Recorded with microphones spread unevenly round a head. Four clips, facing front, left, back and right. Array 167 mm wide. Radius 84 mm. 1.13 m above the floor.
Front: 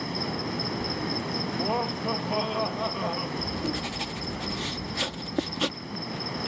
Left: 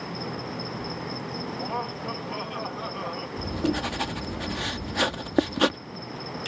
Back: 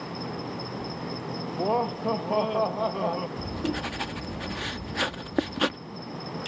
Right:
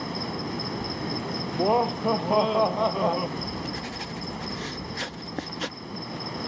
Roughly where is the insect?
Ahead right.